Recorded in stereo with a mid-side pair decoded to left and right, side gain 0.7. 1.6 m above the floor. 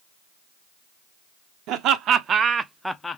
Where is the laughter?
55° right, 1.1 m; by 3.2 s 25° left, 0.5 m.